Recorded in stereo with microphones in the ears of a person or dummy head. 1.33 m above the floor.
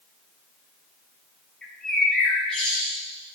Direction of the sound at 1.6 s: 10° left (ahead or behind).